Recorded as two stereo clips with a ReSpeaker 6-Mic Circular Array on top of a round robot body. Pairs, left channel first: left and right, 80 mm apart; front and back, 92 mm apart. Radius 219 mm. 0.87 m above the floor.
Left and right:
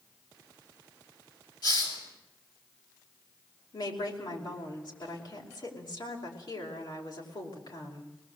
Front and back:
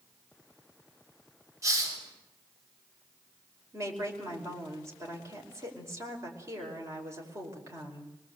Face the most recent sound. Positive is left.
turn(degrees=120)